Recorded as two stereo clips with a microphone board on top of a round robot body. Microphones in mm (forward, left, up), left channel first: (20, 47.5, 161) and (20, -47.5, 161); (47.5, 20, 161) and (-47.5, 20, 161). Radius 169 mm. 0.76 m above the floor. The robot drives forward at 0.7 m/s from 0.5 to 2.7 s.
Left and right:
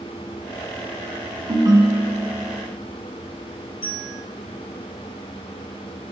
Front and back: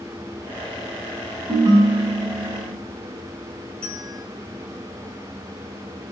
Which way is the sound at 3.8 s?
80° left.